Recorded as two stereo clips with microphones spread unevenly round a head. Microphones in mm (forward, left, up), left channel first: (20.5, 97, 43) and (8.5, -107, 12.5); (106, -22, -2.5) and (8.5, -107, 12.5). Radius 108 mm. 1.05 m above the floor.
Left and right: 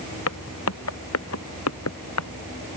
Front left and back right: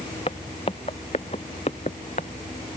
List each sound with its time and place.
0.3 s footsteps: 110° left; by 2.3 s 105° left